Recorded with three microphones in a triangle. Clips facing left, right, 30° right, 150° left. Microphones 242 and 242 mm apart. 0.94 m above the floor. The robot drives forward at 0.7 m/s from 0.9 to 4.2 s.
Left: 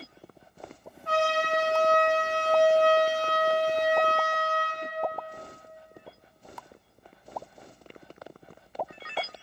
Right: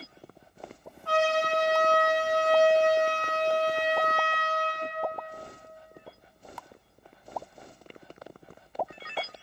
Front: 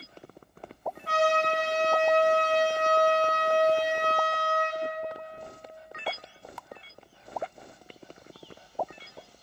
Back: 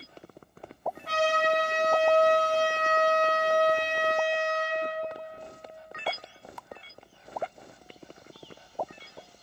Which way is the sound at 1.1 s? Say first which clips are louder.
Right 1 dB, front 1 dB; 20° left.